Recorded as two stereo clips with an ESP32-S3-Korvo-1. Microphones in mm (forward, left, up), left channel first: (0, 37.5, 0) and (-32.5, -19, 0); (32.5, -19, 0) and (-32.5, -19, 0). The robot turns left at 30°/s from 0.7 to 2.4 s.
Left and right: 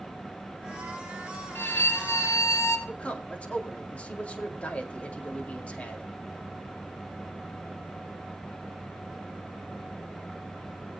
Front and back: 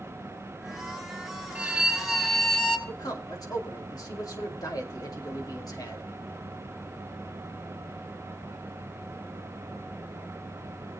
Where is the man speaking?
10° right, 2.5 m.